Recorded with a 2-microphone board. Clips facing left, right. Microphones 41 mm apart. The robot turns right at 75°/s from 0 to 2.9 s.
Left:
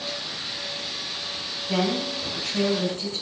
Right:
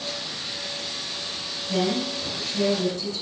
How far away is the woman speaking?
About 5.5 m.